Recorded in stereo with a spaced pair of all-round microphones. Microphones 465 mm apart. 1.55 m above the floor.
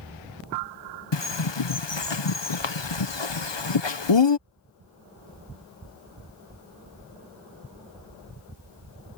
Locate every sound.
1.1 s a bird: 70° left (ahead or behind)